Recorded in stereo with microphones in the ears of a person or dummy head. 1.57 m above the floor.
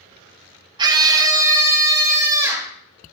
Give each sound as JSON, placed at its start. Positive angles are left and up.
{"t": 0.8, "sound": "a scream", "side_deg": -25, "distance_m": 0.9}